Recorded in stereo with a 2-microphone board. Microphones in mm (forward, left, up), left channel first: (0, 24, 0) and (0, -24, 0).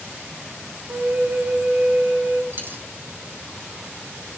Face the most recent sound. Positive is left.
turn(degrees=-45)  # may be behind; listen again after turning